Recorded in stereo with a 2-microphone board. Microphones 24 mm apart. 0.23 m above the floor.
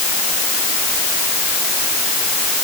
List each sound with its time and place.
Only background noise.